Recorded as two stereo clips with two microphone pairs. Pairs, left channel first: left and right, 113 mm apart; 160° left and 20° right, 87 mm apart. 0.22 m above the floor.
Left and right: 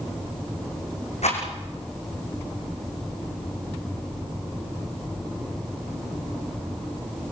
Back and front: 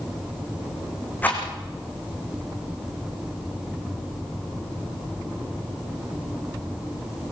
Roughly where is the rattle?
Left.